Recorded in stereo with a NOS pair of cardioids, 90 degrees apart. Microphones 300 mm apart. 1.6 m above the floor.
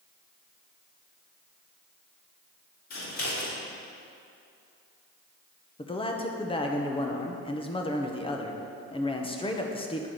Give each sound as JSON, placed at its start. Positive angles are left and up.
{"t": 2.9, "sound": "scissors", "azimuth_deg": 65, "distance_m": 2.5}
{"t": 5.8, "sound": "a man speaking", "azimuth_deg": 15, "distance_m": 1.1}